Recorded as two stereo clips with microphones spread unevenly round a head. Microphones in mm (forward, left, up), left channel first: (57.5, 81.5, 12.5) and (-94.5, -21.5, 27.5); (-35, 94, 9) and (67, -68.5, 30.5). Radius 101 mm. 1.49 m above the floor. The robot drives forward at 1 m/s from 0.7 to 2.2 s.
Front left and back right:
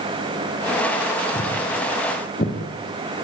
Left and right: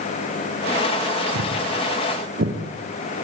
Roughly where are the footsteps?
Ahead right.